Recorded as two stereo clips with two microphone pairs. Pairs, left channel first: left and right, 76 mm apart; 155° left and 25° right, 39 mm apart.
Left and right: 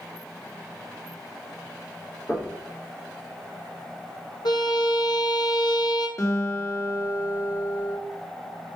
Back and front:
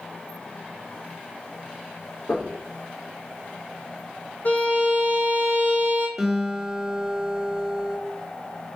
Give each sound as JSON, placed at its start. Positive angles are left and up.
{"t": 2.3, "sound": "knocking", "azimuth_deg": 150, "distance_m": 3.5}
{"t": 4.5, "sound": "a violin", "azimuth_deg": 110, "distance_m": 1.4}
{"t": 6.2, "sound": "a guitar", "azimuth_deg": 55, "distance_m": 2.5}